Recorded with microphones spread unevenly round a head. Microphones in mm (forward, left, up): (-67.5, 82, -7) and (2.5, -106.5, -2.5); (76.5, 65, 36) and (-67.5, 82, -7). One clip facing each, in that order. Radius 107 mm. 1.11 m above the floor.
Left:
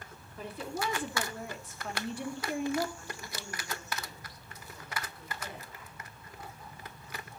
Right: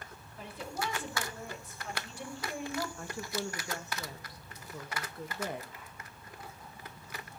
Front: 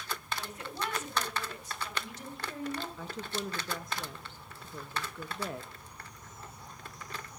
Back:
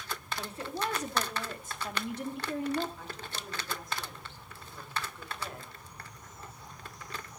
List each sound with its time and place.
0.4 s a woman speaking: 115° left, 2.5 m; by 2.9 s 160° left, 2 m
3.0 s a woman speaking: 25° right, 1.5 m